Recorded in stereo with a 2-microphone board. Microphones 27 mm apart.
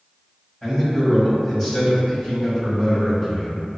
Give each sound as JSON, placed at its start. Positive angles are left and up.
{"t": 0.6, "sound": "a man speaking", "side_deg": 15, "distance_m": 1.9}